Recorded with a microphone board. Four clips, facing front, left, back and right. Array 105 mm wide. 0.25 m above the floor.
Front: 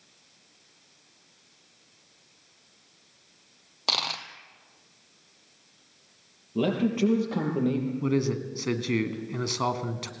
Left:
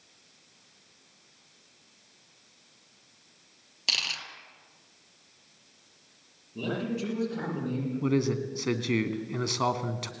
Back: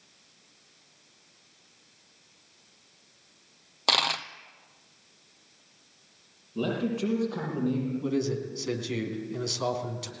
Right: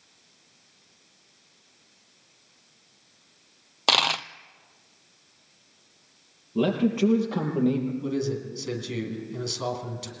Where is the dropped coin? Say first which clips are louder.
Right 15 dB, back 4 dB; 105° right, 0.8 m.